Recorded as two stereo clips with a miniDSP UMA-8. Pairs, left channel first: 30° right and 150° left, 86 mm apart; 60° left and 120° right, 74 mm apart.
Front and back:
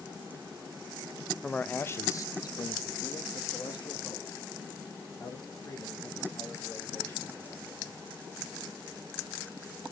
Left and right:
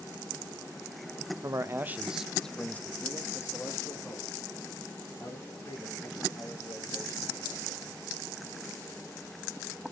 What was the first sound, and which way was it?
A man speaking, 105° right.